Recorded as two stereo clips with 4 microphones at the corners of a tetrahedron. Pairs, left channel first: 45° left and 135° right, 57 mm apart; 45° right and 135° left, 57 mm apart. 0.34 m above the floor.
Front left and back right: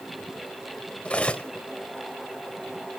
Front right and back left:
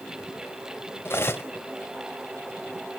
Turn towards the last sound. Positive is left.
turn(degrees=-20)